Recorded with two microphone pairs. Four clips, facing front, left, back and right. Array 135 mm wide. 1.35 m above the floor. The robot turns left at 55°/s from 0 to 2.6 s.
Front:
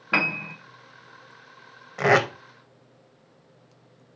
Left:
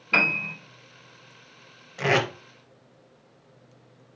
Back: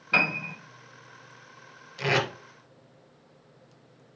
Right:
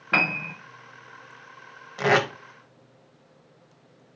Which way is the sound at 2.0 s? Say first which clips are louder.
Right 2 dB, front 7 dB; 20° right.